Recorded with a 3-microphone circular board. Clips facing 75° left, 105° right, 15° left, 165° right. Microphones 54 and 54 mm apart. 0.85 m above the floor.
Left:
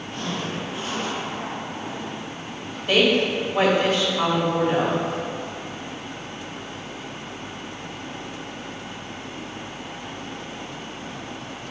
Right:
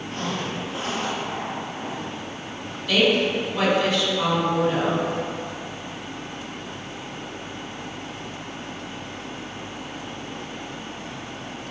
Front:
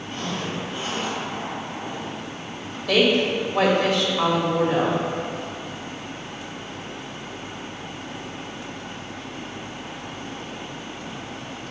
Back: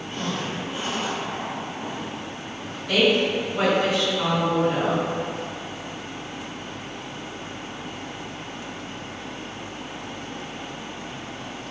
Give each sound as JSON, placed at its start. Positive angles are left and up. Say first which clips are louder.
{"t": 0.1, "sound": "a zipper", "louder": "even, even", "azimuth_deg": -85, "distance_m": 1.8}
{"t": 2.9, "sound": "a woman speaking", "louder": "left 1 dB, front 1 dB", "azimuth_deg": 20, "distance_m": 2.0}